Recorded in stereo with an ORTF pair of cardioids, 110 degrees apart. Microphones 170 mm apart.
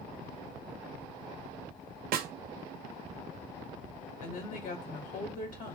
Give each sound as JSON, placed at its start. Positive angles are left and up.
{"t": 2.1, "sound": "a snare drum", "azimuth_deg": -60, "distance_m": 0.8}
{"t": 4.2, "sound": "a woman speaking", "azimuth_deg": 55, "distance_m": 1.8}